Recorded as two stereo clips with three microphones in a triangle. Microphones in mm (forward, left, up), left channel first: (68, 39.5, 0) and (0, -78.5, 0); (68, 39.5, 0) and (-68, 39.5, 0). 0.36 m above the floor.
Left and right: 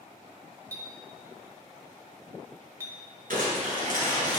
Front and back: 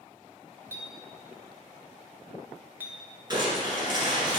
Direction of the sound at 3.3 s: 120° right.